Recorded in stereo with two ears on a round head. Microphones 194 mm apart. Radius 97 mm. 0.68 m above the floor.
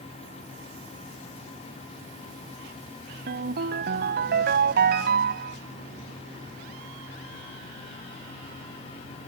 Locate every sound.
3.3 s a ringtone: 50° right (ahead or behind)